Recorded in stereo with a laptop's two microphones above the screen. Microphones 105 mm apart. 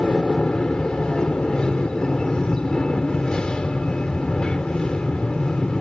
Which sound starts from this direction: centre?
An aircraft, at 0.0 s.